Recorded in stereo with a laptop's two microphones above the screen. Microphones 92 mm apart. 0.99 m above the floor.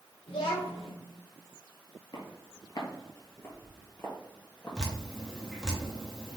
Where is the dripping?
5° left (ahead or behind), 0.8 m.